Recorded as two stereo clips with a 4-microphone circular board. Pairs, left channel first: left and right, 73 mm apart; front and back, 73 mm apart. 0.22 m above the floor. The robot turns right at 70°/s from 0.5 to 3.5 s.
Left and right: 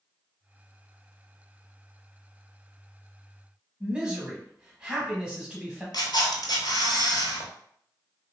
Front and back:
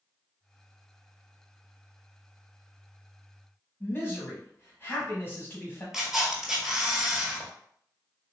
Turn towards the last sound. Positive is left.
turn(degrees=95)